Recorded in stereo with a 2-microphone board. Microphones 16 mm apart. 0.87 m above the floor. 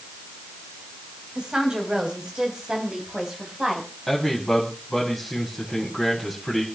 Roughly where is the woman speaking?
Right.